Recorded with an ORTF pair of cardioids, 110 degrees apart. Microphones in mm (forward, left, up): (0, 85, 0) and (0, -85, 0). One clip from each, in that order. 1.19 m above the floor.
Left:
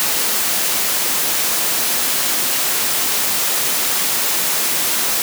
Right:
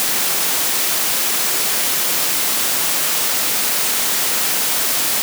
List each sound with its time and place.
Only background noise.